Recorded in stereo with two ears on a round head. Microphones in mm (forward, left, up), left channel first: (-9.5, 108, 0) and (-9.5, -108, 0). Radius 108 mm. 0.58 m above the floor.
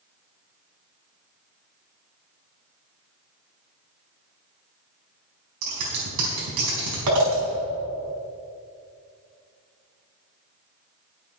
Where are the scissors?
80° right, 4.5 m.